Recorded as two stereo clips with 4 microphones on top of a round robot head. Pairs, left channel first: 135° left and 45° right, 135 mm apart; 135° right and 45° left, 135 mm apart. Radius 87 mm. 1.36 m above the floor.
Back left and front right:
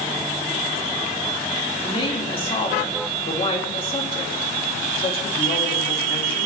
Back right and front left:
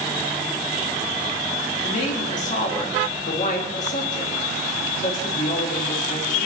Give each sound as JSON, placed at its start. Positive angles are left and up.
{"t": 1.8, "sound": "a woman speaking", "azimuth_deg": -175, "distance_m": 3.0}